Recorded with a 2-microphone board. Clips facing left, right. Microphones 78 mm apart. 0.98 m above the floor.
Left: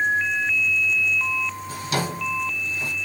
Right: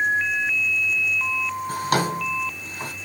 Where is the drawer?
60° right (ahead or behind), 4.5 m.